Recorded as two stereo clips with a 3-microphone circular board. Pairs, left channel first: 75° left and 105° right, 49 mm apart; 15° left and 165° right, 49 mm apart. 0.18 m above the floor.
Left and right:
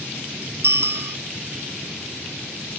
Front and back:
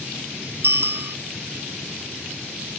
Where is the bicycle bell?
135° right.